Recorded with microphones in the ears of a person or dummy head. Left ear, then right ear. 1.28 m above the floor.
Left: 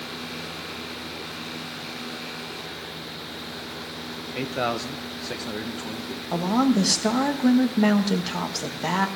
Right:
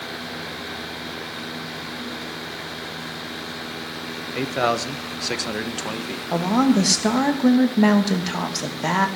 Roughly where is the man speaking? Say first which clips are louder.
Right 5 dB; centre.